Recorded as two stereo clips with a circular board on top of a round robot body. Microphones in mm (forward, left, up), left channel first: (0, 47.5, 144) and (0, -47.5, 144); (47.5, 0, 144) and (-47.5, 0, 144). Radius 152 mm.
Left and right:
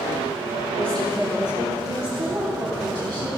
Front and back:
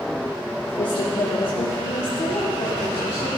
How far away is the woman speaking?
About 1.6 m.